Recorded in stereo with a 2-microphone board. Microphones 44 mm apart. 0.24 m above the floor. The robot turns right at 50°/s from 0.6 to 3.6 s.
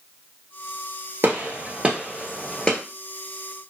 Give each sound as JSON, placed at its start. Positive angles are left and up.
{"t": 1.2, "sound": "a gunshot", "side_deg": -60, "distance_m": 1.2}